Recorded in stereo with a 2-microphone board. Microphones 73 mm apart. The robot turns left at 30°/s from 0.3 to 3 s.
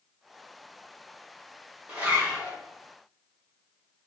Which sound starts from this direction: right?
A zipper, at 1.9 s.